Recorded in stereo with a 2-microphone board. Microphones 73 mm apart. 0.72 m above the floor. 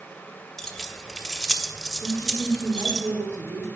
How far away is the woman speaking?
About 2.5 m.